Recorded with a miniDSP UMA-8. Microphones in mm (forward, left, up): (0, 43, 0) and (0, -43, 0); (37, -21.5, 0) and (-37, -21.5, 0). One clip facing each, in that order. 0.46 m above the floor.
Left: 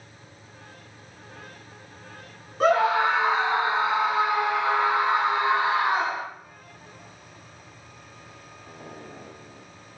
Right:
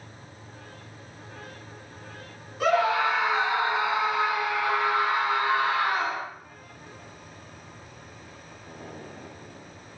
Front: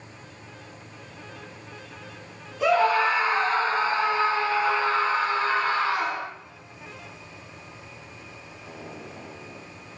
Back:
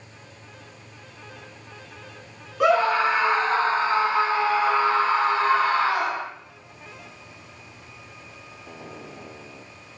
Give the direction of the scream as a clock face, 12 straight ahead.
7 o'clock.